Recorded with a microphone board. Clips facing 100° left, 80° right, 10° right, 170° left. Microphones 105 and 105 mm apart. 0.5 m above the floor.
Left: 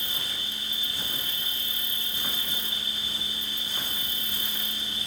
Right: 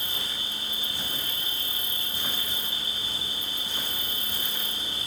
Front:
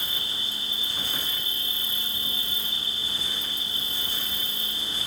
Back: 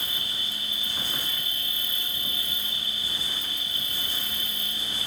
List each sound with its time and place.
0.0 s an insect: 55° right, 1.7 m